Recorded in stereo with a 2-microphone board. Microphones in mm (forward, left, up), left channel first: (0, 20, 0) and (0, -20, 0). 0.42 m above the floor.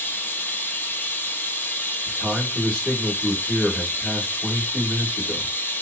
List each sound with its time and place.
0.0 s running water: 60° left (ahead or behind), 0.8 m
2.1 s a man speaking: 5° left (ahead or behind), 1.7 m